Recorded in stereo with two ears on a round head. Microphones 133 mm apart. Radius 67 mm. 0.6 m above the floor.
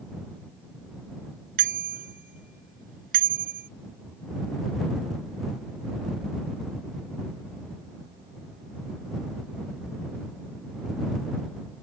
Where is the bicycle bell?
65° right (ahead or behind).